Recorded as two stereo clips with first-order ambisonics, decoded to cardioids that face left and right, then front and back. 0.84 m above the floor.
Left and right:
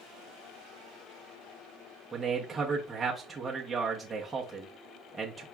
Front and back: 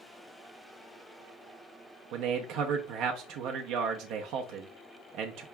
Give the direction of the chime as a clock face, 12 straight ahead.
No chime in this recording.